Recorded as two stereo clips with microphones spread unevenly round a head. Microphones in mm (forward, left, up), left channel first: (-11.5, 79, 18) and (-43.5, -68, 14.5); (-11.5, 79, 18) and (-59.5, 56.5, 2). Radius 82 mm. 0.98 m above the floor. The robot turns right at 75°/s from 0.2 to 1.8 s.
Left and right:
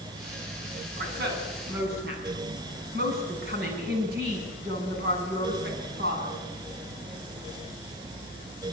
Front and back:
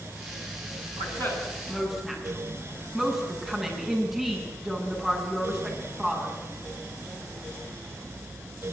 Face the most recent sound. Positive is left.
turn(degrees=-70)